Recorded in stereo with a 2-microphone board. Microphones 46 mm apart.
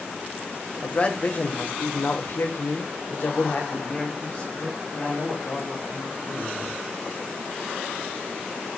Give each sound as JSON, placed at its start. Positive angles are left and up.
{"t": 0.8, "sound": "a man speaking", "side_deg": 30, "distance_m": 1.7}